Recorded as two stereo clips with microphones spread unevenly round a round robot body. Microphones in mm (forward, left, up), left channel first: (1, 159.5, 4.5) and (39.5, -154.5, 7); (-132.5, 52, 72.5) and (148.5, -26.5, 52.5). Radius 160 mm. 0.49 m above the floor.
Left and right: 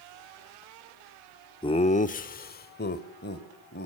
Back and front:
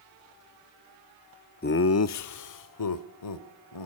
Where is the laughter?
155° left, 0.7 m; by 3.9 s 160° left, 2.5 m.